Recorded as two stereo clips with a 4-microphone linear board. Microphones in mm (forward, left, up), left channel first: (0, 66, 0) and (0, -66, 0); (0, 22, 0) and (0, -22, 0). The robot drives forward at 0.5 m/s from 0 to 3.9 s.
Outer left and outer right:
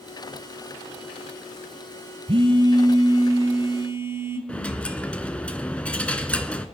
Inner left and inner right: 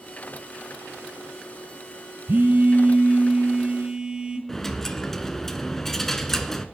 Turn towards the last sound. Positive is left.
turn(degrees=10)  # may be behind; listen again after turning